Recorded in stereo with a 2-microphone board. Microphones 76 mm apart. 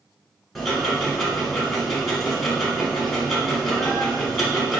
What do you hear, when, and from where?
0.6 s ticking: centre (ahead or behind), 1.1 m